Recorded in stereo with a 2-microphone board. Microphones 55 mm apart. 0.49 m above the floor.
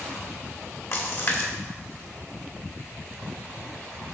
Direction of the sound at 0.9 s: 45° left (ahead or behind).